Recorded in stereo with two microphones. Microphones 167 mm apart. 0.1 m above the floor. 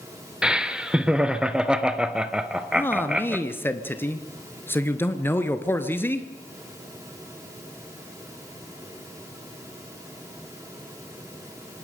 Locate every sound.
0.4 s laughter: 5° right (ahead or behind), 1.3 m
2.8 s a man speaking: 15° left (ahead or behind), 1.4 m